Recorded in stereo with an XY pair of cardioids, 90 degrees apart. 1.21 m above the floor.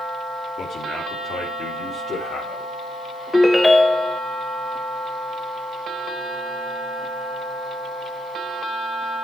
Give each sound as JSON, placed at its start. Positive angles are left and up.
{"t": 0.6, "sound": "a man speaking", "azimuth_deg": 70, "distance_m": 2.5}
{"t": 3.3, "sound": "a ringtone", "azimuth_deg": 20, "distance_m": 0.9}